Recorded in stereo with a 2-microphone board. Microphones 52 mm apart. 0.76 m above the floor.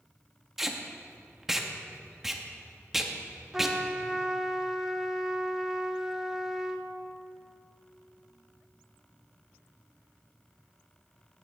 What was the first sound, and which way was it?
Tape being pulled, 5° right (ahead or behind).